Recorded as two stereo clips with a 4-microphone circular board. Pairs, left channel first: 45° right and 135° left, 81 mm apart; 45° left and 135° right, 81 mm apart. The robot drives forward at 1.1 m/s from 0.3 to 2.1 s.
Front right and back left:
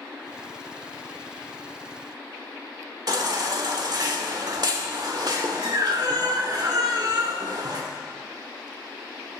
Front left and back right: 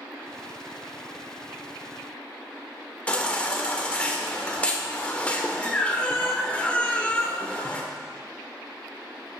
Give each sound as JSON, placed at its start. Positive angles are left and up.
{"t": 3.1, "sound": "a baby crying", "azimuth_deg": 115, "distance_m": 1.2}